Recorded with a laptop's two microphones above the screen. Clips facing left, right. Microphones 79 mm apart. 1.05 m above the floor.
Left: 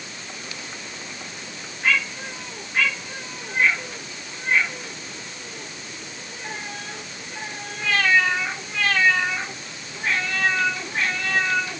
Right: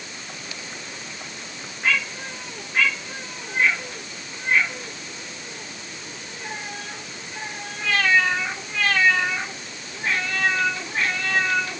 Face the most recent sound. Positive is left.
No sound to turn to.